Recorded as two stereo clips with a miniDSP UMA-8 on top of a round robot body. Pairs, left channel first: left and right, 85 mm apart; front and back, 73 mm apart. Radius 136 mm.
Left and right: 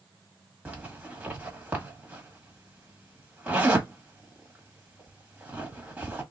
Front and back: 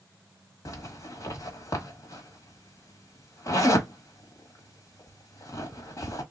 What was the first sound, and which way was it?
A zipper, 25° right.